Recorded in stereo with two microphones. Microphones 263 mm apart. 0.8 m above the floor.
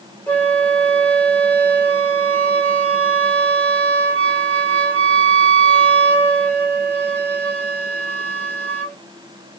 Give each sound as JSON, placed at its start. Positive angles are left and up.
{"t": 0.3, "sound": "a flute", "side_deg": 5, "distance_m": 2.0}